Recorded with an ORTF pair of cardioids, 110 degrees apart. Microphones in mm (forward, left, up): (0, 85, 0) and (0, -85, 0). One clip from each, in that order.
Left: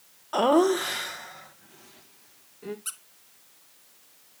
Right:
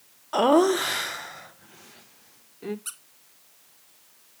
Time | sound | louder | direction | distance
0.3 | laughter | right 2 dB | 5° right | 0.6 m
2.9 | a squeak | left 1 dB | straight ahead | 1.2 m